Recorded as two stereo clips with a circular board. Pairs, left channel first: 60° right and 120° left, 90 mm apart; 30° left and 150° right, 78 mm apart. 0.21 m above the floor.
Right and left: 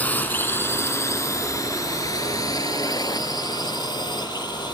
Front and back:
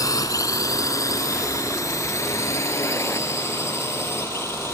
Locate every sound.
0.0 s a drone: 10° left; by 4.8 s 25° right